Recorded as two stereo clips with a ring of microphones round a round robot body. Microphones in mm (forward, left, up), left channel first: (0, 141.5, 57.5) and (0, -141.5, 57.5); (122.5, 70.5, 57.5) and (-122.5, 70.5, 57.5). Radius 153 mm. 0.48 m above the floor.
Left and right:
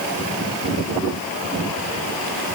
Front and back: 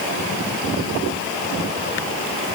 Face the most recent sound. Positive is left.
No sound to turn to.